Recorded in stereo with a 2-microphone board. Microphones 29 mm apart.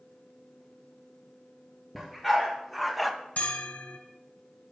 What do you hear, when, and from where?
1.9 s a dog barking: 5° right (ahead or behind), 2 m; by 3.1 s centre (ahead or behind), 0.5 m
3.4 s a bell: 70° left (ahead or behind), 1.0 m